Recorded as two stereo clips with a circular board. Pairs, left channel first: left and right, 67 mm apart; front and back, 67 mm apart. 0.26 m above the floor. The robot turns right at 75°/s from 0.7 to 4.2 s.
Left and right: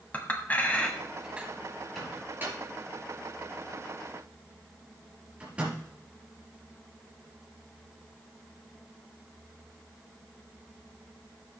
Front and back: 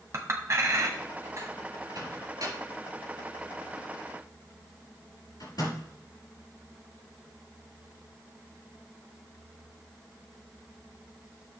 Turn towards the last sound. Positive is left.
turn(degrees=-15)